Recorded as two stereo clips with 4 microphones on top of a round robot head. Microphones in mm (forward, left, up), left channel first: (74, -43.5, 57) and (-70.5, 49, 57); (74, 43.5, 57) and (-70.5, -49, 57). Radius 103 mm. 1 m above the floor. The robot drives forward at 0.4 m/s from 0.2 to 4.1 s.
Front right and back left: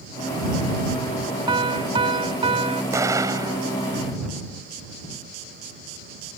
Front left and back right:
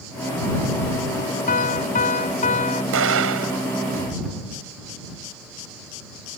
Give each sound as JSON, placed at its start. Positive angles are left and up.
{"t": 1.5, "sound": "a piano", "azimuth_deg": 80}
{"t": 2.9, "sound": "an explosion", "azimuth_deg": -140}